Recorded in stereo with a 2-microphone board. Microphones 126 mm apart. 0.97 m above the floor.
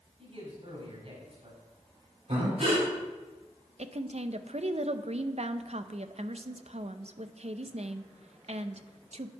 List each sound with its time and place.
0.2 s a man speaking: 50° right (ahead or behind), 4.5 m
2.3 s breathing: 60° right (ahead or behind), 3.5 m
3.8 s a woman speaking: 60° right (ahead or behind), 0.5 m